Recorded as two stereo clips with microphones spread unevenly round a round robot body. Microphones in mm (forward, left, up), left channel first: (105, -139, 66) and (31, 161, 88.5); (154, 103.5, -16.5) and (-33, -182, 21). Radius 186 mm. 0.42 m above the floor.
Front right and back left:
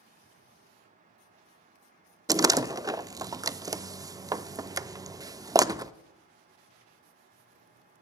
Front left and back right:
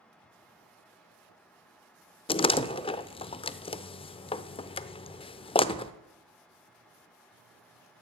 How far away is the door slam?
About 0.6 m.